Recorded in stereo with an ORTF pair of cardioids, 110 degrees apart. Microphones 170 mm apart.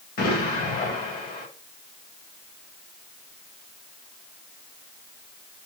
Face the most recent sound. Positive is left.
turn(degrees=55)